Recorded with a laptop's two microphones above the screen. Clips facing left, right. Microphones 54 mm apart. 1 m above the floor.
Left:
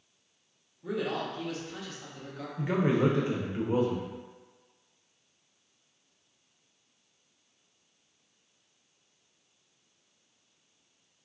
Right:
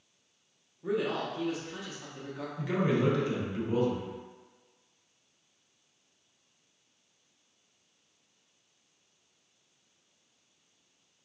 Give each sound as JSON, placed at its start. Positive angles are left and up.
{"t": 0.8, "sound": "a man speaking", "side_deg": -20, "distance_m": 0.8}
{"t": 2.6, "sound": "a man speaking", "side_deg": 25, "distance_m": 0.7}